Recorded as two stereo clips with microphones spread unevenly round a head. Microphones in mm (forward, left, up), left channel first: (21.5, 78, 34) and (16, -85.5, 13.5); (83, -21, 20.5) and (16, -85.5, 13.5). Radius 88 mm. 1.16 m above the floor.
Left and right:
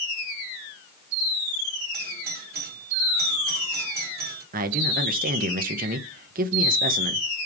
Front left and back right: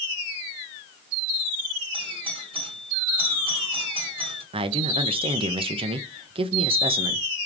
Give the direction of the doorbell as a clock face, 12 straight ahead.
4 o'clock.